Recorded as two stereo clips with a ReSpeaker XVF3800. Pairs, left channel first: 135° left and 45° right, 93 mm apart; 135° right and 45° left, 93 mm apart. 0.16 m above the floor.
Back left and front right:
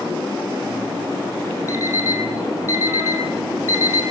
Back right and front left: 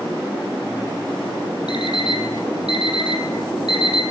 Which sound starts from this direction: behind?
An alarm clock, at 1.7 s.